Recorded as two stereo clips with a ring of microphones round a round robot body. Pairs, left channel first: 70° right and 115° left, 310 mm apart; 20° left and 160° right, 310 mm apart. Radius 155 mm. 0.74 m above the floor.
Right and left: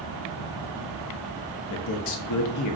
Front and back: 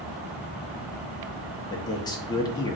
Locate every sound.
1.7 s a man speaking: 55° right, 0.8 m